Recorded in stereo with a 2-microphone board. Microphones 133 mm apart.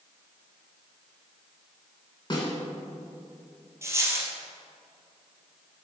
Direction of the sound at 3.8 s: 20° right (ahead or behind).